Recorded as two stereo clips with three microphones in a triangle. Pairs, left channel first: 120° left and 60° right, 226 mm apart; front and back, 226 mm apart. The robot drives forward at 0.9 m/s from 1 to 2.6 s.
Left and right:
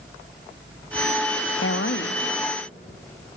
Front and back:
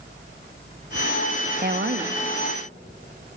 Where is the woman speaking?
135° left, 0.8 m; by 2.1 s 150° left, 1.2 m.